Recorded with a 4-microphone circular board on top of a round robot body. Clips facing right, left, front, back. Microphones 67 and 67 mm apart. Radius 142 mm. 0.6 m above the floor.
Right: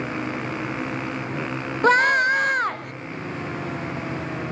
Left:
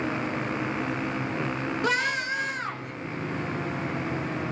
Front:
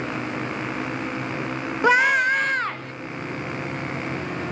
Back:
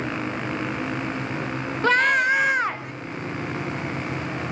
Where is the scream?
70° right, 0.8 m; by 2.9 s 110° right, 1.3 m.